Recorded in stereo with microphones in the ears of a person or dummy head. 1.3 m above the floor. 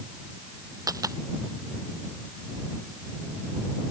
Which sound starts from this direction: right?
A dropped coin, at 0.9 s.